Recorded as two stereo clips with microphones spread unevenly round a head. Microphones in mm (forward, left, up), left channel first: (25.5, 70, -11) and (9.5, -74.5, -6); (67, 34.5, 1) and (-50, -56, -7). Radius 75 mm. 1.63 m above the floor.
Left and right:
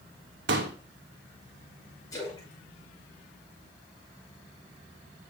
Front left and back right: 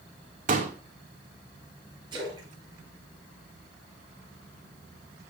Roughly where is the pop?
Right.